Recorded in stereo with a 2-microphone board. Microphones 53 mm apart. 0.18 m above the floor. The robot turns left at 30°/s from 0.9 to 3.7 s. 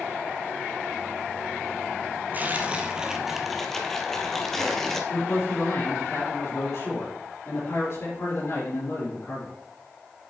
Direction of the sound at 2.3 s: 145° right.